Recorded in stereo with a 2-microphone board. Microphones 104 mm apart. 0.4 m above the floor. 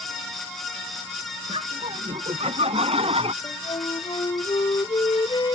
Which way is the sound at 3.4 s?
50° left (ahead or behind).